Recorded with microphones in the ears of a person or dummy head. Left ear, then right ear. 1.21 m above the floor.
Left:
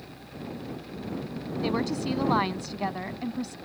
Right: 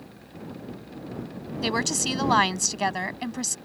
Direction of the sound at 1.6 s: 65° right (ahead or behind).